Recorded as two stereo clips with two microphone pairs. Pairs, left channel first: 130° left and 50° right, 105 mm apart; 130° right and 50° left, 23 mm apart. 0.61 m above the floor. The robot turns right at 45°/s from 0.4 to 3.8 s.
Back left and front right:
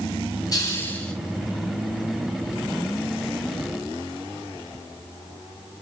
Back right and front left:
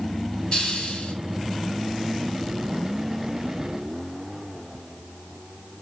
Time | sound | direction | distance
0.5 | a hiss | straight behind | 5.5 m